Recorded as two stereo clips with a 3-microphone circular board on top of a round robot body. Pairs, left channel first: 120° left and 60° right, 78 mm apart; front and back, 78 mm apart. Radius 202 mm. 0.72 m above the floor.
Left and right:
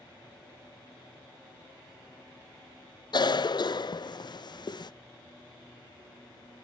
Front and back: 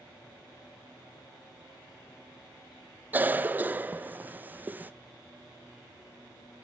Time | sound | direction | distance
3.1 | a cough | 115° left | 0.5 m